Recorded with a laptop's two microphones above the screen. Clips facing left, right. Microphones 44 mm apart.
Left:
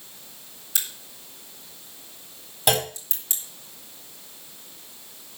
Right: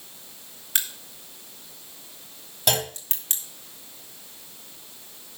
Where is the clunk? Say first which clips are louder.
Left 3 dB; 5° left (ahead or behind), 3 m.